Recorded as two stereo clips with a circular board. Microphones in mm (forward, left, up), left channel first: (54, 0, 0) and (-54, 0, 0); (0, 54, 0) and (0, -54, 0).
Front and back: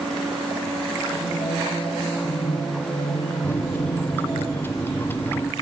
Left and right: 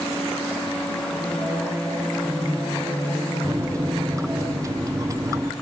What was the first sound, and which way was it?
Singing, 15° right.